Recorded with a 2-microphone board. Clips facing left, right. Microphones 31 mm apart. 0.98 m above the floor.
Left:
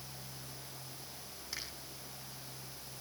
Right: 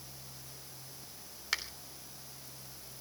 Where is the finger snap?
75° right (ahead or behind), 3 m.